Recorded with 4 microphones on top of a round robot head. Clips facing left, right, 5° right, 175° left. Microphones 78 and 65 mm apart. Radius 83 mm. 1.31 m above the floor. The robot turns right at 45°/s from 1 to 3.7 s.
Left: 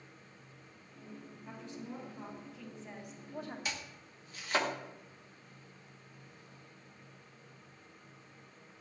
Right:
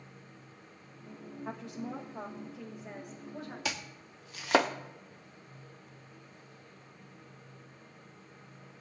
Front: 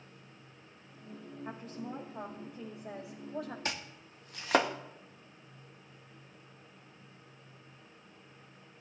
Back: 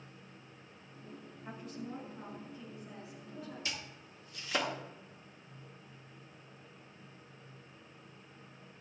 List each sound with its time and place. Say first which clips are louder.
1.4 s a woman speaking: right 6 dB, front 1 dB; 85° right, 2 m; by 3.5 s 10° left, 2 m
3.6 s chopping: right 4 dB, front 4 dB; 60° right, 0.6 m; by 4.7 s 55° right, 0.6 m